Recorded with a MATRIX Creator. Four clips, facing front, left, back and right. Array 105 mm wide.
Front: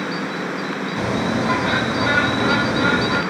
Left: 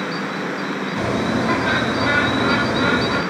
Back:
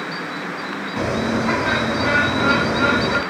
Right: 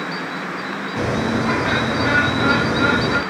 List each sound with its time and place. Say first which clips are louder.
1.0 s a bird: right 1 dB, back 1 dB; 160° right, 1.6 m